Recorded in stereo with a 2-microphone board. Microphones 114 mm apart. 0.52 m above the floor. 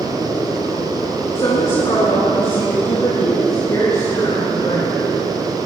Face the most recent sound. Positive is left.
turn(degrees=35)  # may be behind; listen again after turning